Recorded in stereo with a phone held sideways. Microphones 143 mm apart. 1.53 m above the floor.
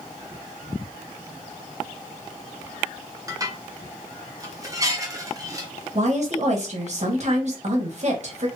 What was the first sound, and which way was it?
Dishes clattering, 25° right (ahead or behind).